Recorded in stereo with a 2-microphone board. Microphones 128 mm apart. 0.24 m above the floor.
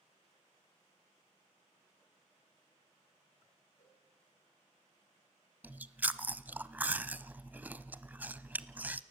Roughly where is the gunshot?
No gunshot in this recording.